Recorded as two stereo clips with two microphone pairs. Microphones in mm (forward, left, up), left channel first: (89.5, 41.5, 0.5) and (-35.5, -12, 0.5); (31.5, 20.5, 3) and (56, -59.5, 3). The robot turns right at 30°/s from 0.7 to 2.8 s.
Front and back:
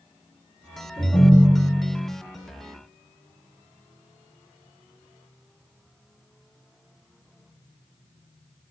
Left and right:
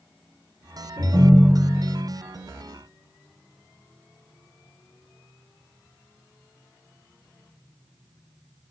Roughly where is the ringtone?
Ahead right.